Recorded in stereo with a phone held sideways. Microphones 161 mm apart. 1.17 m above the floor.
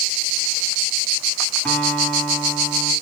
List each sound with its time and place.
1.6 s a guitar: 10° left (ahead or behind), 4.5 m